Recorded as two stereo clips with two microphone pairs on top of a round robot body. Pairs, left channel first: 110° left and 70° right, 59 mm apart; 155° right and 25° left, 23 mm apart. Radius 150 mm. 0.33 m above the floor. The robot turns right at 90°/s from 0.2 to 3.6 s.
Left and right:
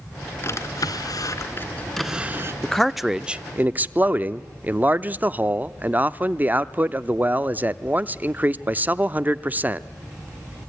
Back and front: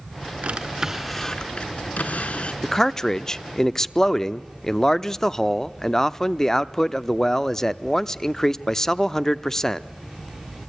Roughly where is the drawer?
Ahead left.